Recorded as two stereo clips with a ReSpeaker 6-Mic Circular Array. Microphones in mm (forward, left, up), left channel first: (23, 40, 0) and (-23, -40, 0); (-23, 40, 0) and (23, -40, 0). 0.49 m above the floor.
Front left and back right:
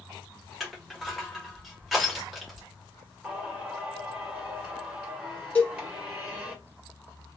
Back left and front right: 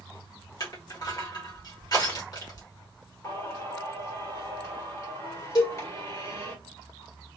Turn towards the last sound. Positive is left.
turn(degrees=125)